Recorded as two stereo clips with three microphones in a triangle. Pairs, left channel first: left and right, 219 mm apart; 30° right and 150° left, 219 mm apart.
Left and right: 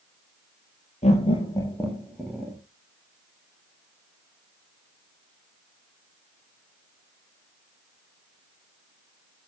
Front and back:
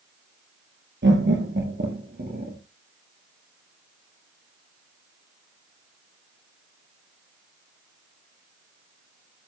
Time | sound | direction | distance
1.0 | laughter | 145° left | 3 m